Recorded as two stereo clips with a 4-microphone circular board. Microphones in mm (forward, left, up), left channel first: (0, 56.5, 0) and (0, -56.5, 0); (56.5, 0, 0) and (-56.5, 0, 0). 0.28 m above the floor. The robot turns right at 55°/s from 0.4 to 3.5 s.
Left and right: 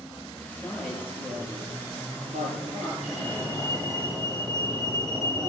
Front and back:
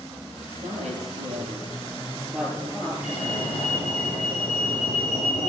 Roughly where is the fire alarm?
Ahead.